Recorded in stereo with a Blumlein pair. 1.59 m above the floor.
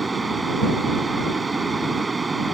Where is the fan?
10° right.